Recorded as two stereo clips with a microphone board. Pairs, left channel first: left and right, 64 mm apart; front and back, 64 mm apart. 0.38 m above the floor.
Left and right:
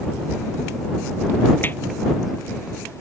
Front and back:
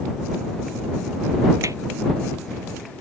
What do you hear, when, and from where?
1.6 s hammering: 150° left